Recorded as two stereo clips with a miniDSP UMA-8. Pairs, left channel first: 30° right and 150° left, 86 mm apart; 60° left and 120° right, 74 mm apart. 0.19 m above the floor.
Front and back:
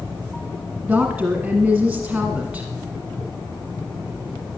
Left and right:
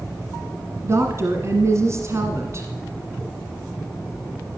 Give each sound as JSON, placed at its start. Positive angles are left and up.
{"t": 0.8, "sound": "a woman speaking", "azimuth_deg": -130, "distance_m": 1.6}